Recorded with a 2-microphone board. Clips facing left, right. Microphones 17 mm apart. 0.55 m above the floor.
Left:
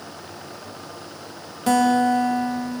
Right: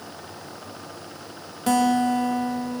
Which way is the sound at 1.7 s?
5° left (ahead or behind).